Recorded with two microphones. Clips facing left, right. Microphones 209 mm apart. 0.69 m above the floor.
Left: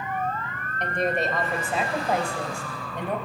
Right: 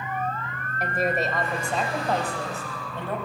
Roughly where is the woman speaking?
Centre.